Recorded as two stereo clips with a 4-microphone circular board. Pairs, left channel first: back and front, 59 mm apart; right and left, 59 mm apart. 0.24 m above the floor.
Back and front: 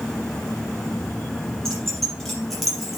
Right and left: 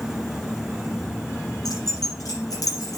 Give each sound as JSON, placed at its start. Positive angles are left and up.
{"t": 1.6, "sound": "keys jangling", "azimuth_deg": -100, "distance_m": 5.5}